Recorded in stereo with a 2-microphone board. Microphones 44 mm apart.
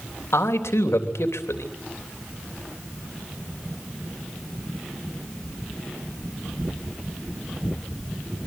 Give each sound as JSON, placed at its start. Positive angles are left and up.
{"t": 0.3, "sound": "a man speaking", "side_deg": 90, "distance_m": 3.5}